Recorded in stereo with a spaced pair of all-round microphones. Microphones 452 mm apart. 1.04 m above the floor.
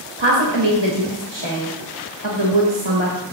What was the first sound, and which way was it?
A woman speaking, 65° right (ahead or behind).